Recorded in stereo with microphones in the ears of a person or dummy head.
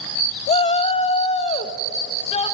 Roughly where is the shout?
Left.